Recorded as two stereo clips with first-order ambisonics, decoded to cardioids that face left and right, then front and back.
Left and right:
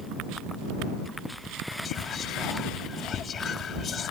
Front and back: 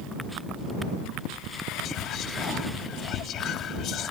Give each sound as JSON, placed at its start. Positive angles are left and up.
{"t": 1.9, "sound": "whispering", "azimuth_deg": 35}